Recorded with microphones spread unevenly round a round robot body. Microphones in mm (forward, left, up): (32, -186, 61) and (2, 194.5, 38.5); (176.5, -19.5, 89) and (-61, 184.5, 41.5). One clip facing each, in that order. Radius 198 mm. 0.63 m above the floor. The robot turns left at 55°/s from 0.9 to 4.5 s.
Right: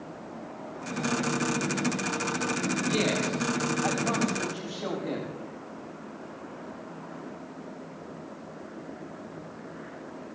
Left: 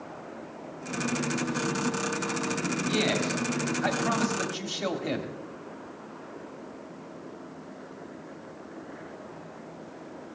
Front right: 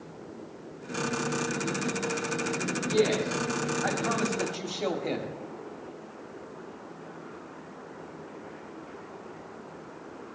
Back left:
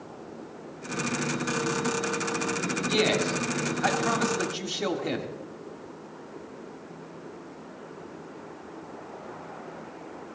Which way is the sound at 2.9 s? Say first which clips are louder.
Left 1 dB, front right 1 dB; 175° left.